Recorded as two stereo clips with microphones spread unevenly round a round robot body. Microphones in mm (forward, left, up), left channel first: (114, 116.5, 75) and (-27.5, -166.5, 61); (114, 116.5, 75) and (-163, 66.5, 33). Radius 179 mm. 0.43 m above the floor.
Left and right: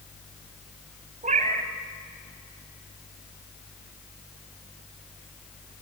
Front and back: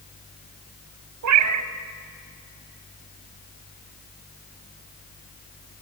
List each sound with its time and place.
1.2 s a cat meowing: 175° left, 1.0 m